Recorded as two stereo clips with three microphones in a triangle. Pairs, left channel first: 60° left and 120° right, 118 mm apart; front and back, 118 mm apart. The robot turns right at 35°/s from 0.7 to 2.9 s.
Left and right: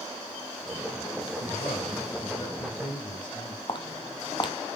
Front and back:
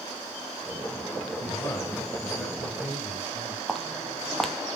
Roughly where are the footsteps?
Left.